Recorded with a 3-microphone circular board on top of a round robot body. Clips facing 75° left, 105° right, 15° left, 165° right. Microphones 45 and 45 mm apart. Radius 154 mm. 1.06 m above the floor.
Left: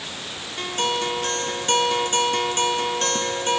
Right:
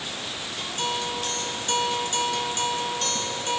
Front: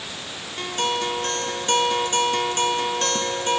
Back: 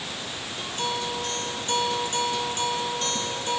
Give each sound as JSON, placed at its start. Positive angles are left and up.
{"t": 0.6, "sound": "a guitar", "azimuth_deg": 40, "distance_m": 0.5}